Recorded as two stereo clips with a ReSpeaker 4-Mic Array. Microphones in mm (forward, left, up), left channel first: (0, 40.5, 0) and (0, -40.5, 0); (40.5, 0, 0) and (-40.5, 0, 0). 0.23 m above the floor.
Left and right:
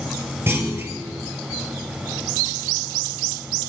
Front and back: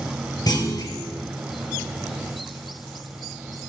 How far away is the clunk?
About 2.5 m.